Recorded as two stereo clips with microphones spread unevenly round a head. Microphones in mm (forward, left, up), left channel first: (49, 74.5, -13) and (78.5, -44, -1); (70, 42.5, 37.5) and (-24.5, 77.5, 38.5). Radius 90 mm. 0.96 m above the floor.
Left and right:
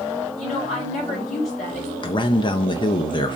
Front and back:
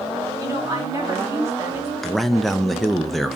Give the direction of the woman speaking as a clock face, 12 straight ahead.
9 o'clock.